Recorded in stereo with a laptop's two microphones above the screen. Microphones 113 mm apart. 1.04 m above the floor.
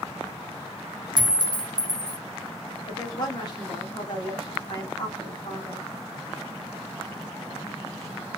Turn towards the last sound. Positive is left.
turn(degrees=40)  # may be behind; listen again after turning